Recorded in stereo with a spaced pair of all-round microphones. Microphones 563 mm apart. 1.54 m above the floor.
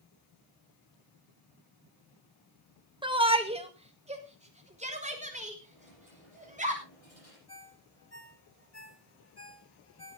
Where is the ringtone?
25° left (ahead or behind), 3 m.